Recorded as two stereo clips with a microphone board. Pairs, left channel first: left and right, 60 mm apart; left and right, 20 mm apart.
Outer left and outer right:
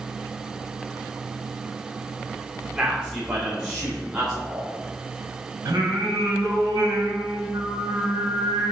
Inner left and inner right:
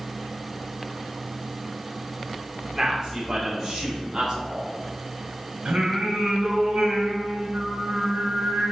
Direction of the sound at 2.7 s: 30° right (ahead or behind).